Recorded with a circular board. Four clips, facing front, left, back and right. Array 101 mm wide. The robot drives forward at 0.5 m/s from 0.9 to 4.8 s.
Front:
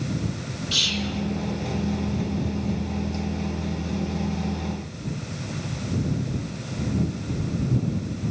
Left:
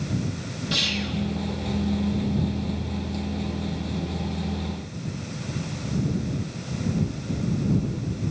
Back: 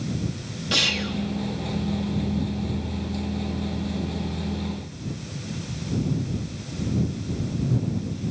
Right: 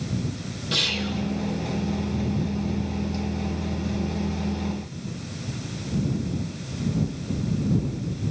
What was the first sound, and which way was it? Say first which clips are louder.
Whispering: right 1 dB, back 3 dB; 175° left.